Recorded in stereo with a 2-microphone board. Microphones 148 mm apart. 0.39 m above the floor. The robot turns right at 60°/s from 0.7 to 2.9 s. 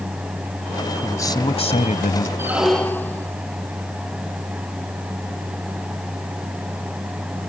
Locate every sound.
1.0 s a man speaking: 15° left; by 2.3 s 90° left
2.4 s a squeak: 15° right; by 3.3 s 15° left